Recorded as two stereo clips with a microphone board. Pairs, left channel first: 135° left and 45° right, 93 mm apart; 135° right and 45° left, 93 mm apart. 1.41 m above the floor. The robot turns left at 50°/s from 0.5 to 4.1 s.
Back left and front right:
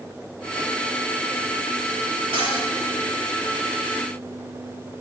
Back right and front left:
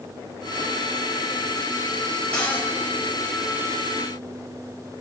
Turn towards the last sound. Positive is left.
turn(degrees=-145)